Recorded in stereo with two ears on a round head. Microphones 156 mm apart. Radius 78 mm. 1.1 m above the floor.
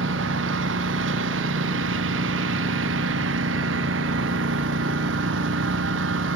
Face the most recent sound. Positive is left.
turn(degrees=-85)